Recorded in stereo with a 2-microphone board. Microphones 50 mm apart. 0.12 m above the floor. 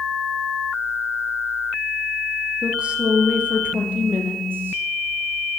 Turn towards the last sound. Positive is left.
turn(degrees=-45)  # may be behind; listen again after turning